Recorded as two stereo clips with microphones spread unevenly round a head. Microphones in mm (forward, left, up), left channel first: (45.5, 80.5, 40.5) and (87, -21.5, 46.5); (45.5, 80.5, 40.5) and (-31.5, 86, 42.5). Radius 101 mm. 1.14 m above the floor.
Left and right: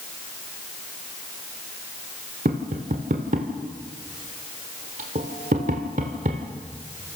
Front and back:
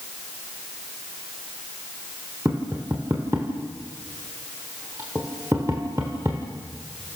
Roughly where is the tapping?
Right.